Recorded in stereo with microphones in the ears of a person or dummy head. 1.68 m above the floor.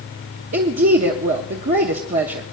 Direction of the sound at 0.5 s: 35° right (ahead or behind).